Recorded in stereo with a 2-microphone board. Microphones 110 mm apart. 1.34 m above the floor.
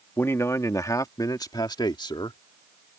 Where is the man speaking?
20° left (ahead or behind); by 2.4 s 45° left (ahead or behind).